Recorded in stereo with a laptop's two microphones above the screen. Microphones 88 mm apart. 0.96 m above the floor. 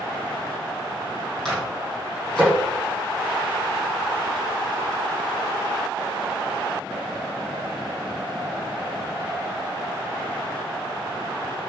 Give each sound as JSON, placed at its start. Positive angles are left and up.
{"t": 1.4, "sound": "a microwave", "side_deg": 10, "distance_m": 8.0}